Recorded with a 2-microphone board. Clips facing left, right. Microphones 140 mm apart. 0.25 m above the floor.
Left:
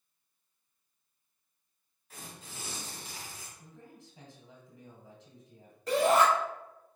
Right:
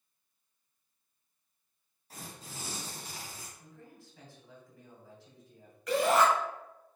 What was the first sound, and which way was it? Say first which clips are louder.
Tearing paper: right 2 dB; 35° right (ahead or behind).